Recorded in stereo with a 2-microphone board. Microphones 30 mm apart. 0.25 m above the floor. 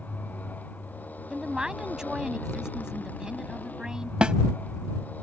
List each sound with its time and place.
0.0 s a motorcycle: 75° left (ahead or behind)
1.3 s a woman speaking: 25° right (ahead or behind)
4.2 s a snare drum: 35° right (ahead or behind)